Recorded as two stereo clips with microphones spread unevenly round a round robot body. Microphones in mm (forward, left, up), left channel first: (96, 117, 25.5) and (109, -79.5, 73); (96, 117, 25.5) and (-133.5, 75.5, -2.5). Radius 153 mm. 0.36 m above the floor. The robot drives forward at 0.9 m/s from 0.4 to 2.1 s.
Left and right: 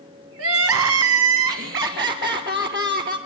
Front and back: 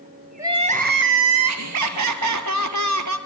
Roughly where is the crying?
Right.